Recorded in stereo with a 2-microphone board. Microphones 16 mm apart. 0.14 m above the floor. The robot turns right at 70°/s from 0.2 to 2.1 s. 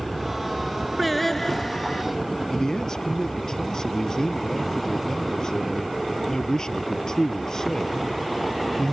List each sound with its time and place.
1.0 s singing: straight ahead; by 2.0 s 75° left
2.5 s a man speaking: 45° left (ahead or behind)